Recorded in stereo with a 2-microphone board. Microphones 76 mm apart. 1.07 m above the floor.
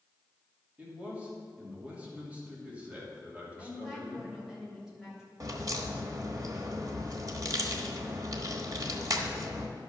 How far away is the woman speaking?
About 3 m.